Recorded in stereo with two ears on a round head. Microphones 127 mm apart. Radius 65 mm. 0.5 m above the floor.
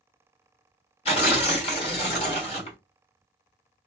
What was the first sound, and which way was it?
Tearing paper, 45° left (ahead or behind).